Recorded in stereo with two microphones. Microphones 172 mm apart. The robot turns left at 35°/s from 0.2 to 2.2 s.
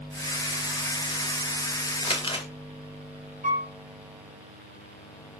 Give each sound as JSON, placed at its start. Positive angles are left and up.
{"t": 2.0, "sound": "crumpling", "side_deg": 35, "distance_m": 0.5}
{"t": 3.4, "sound": "a piano", "side_deg": -55, "distance_m": 1.3}